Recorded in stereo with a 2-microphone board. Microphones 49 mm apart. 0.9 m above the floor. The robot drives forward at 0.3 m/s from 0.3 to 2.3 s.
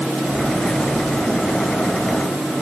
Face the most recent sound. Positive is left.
No sound to turn to.